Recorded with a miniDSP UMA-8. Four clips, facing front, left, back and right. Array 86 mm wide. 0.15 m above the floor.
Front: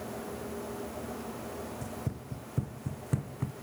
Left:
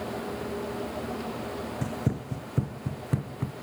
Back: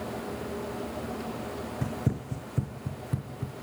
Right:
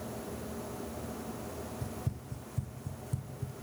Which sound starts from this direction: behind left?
Running footsteps, at 1.8 s.